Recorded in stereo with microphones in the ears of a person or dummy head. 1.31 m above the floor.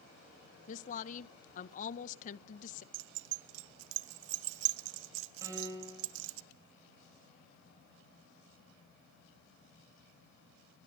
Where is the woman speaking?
45° left (ahead or behind), 0.8 m.